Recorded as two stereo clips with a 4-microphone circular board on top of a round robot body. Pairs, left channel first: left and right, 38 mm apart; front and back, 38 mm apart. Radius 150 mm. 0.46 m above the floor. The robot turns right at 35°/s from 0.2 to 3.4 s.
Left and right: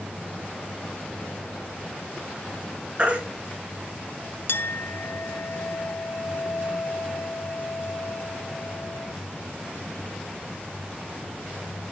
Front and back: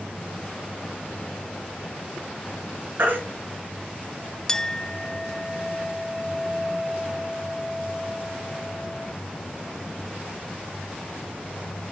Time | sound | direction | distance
3.0 | a baby crying | 150° right | 4.5 m
4.5 | a clink | 75° left | 0.7 m